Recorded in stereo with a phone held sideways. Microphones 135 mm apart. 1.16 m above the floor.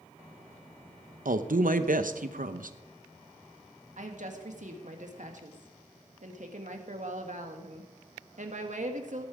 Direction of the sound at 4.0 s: 65° right (ahead or behind).